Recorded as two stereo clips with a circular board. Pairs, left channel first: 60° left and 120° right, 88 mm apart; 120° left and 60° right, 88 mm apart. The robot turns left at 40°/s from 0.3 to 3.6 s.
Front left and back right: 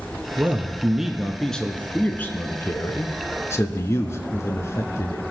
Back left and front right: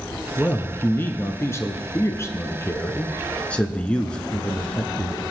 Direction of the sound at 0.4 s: 175° right.